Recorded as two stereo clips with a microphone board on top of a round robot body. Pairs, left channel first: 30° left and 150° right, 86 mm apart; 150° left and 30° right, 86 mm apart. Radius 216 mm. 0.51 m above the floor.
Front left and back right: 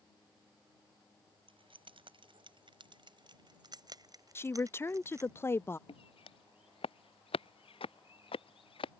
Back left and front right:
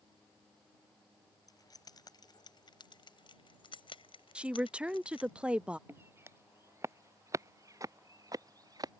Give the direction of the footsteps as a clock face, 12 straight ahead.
11 o'clock.